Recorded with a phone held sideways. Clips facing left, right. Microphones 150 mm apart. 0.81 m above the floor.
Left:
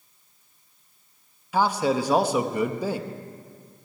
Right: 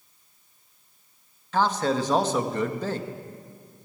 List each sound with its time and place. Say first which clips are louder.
1.5 s a man speaking: left 1 dB; 10° left (ahead or behind), 0.8 m